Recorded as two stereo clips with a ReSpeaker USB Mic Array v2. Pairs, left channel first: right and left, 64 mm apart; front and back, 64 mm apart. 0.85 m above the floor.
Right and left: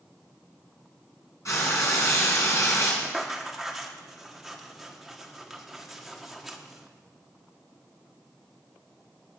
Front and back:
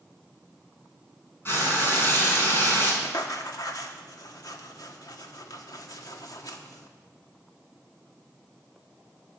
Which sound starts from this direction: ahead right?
Frying, at 1.4 s.